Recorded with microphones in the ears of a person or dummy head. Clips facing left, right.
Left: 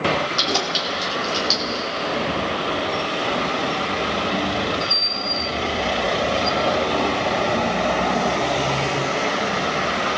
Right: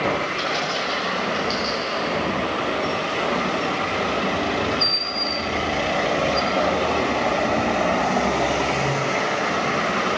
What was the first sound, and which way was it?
Keys jangling, 75° left (ahead or behind).